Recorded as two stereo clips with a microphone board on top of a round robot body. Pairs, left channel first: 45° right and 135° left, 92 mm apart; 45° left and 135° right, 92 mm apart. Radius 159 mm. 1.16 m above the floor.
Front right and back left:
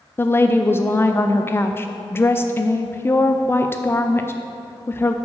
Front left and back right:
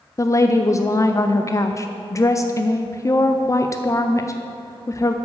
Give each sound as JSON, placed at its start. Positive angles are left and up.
{"t": 0.2, "sound": "a woman speaking", "azimuth_deg": 5, "distance_m": 0.5}